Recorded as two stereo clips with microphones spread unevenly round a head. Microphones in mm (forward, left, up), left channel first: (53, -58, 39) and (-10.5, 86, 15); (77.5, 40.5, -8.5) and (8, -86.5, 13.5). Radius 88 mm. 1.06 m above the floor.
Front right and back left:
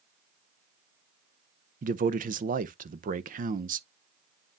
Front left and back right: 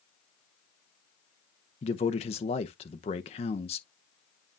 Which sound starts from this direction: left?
A man speaking, at 1.8 s.